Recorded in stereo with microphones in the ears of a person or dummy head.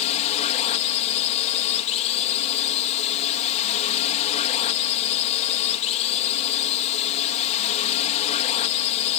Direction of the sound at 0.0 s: 35° left (ahead or behind).